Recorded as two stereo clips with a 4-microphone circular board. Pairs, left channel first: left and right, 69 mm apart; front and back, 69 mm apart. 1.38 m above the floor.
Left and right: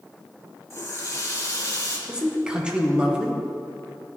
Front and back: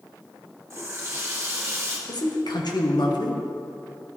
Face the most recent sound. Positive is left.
turn(degrees=-15)